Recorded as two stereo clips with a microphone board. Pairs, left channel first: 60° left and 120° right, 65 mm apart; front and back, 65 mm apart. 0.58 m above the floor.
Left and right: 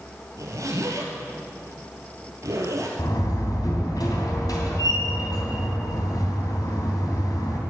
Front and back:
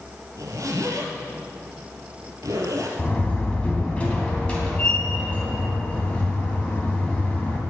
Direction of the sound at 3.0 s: 70° left.